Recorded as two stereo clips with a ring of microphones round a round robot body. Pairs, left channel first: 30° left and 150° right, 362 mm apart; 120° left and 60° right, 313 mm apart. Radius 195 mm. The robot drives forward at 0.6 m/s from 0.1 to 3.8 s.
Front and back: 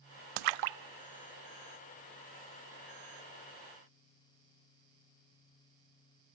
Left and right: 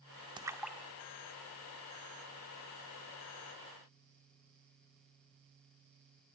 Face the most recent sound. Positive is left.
turn(degrees=-170)